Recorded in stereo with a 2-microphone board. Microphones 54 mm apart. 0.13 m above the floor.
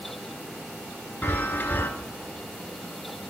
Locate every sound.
1.2 s a chime: 40° left (ahead or behind), 0.6 m